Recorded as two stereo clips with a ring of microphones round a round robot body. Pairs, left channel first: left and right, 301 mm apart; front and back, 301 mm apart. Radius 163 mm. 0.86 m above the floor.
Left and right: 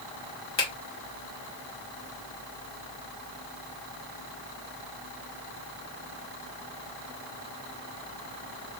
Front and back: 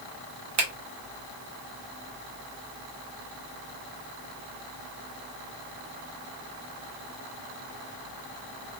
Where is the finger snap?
145° left, 1.0 m.